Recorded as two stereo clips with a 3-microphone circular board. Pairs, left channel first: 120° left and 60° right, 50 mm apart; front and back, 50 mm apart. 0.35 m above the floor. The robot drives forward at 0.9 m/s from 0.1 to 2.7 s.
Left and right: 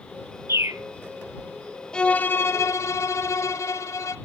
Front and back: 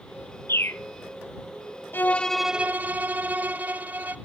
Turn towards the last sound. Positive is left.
turn(degrees=125)